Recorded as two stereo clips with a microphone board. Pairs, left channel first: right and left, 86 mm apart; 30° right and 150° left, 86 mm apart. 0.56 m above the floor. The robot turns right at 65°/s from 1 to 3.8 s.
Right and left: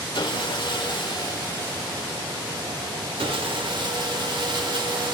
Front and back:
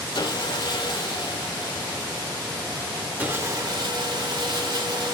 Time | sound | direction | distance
0.1 | sawing | 60° right | 0.6 m